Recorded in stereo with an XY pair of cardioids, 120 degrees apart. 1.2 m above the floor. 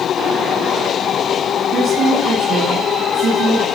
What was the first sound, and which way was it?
A woman speaking, 55° right.